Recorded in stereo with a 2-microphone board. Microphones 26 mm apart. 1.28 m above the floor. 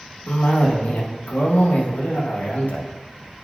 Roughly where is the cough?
Left.